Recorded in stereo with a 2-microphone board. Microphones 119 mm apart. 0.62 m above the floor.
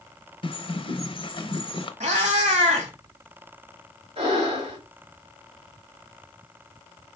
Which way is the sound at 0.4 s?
45° left (ahead or behind).